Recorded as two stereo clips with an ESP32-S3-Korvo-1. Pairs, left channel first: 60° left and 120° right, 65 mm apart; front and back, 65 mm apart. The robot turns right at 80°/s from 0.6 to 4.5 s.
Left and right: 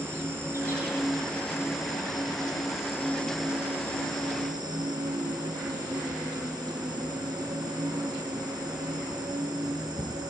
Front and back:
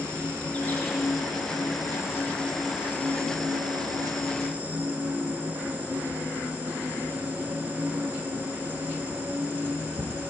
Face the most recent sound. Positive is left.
turn(degrees=-115)